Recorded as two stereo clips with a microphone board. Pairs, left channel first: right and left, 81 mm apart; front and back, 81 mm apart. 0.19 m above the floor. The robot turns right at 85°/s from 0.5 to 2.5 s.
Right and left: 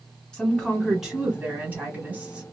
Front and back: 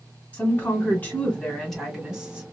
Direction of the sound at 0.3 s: 25° right.